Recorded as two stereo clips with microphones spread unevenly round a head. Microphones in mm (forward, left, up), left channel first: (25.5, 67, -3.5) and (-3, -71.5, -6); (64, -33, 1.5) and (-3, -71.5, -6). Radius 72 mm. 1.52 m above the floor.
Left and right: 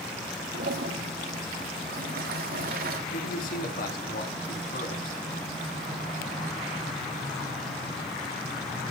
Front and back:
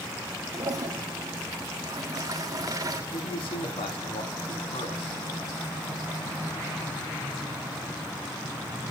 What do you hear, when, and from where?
0.5 s a toilet flushing: 115° right, 2 m
3.1 s a man speaking: 50° left, 3.5 m